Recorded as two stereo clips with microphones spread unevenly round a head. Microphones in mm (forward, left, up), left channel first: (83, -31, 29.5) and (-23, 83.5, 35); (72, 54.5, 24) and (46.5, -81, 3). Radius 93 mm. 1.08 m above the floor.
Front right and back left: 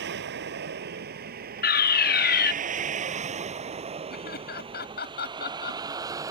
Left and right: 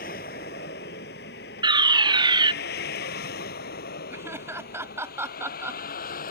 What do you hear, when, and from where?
0.0 s a vehicle: 125° left; by 6.3 s 65° left
1.6 s a fire alarm: 45° right
4.1 s laughter: 30° right